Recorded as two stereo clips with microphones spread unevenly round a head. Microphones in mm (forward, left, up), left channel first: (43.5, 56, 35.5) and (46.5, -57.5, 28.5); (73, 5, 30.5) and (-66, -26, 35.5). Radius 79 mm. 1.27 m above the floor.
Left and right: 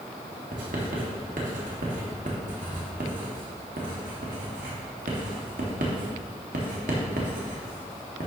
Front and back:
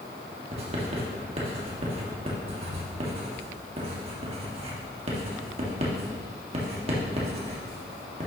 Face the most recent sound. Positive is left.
turn(degrees=-120)